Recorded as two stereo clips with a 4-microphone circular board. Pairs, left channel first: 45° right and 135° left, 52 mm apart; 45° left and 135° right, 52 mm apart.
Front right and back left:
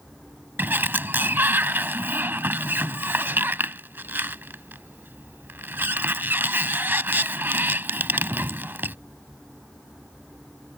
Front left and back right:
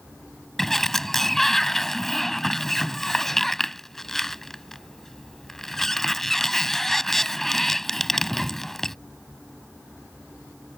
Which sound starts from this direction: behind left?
A sliding door, at 0.6 s.